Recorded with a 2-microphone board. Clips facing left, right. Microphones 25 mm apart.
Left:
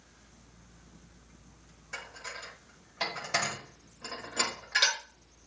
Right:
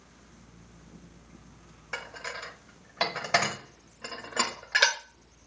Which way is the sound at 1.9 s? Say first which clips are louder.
Right 4 dB; 40° right (ahead or behind).